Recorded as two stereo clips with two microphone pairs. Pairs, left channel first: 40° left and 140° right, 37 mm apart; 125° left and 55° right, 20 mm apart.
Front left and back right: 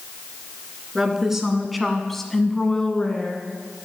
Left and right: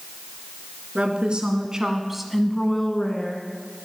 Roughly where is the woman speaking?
Ahead right.